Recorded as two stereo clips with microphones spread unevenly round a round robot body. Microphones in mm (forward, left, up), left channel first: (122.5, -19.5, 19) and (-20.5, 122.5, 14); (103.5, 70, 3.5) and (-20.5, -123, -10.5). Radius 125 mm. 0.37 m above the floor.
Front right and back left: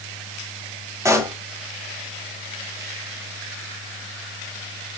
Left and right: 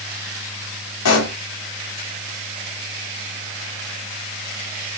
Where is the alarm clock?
I don't hear an alarm clock.